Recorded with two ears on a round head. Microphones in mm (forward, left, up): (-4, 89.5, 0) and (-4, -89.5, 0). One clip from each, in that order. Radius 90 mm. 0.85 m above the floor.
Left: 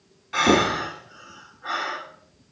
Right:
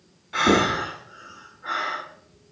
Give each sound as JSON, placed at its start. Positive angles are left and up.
{"t": 0.3, "sound": "breathing", "side_deg": 20, "distance_m": 1.8}